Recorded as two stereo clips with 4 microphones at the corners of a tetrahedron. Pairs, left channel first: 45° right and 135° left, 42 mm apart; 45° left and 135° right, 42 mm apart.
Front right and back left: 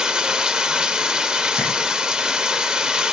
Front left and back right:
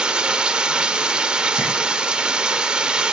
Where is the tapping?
175° right, 6.5 m.